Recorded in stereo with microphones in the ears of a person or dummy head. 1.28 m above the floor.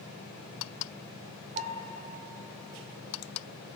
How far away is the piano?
About 2.5 m.